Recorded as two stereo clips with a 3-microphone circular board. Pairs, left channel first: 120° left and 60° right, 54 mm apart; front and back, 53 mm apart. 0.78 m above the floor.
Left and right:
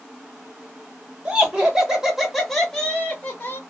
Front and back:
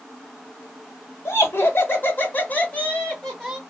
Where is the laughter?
Straight ahead, 1.5 m; by 3.6 s 85° left, 1.1 m.